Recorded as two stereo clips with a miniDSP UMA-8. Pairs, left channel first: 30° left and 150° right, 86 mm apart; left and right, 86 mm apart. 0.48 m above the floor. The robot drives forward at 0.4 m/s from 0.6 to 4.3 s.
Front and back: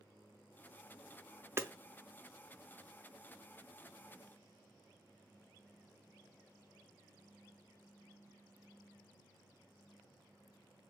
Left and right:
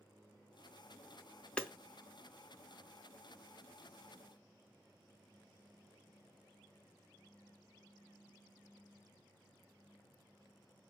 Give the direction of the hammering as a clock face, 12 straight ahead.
7 o'clock.